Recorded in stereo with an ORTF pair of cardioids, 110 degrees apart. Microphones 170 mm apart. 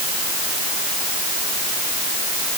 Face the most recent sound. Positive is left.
No sound to turn to.